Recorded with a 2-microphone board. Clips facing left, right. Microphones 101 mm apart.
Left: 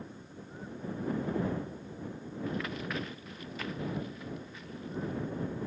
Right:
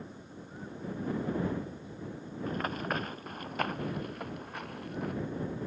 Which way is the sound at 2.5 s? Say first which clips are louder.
Right 3 dB; 45° right (ahead or behind).